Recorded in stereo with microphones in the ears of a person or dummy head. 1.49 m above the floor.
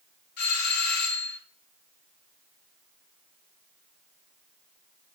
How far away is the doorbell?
About 3 m.